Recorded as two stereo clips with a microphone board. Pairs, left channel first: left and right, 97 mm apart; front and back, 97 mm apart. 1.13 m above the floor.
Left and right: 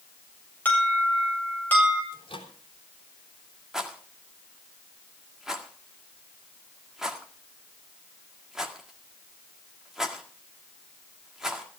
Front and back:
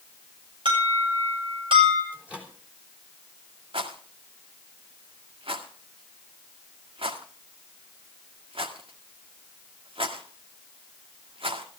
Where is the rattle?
175° right, 1.8 m.